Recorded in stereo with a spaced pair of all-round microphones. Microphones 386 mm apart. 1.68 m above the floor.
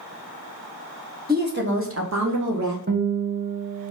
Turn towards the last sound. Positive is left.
turn(degrees=-25)  # may be behind; listen again after turning